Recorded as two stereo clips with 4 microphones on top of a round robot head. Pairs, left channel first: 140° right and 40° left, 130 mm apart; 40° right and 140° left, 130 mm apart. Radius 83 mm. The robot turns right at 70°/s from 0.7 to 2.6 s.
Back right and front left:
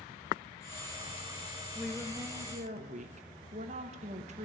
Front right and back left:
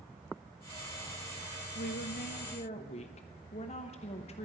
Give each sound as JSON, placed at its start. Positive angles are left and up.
{"t": 1.8, "sound": "a woman speaking", "azimuth_deg": -55, "distance_m": 1.0}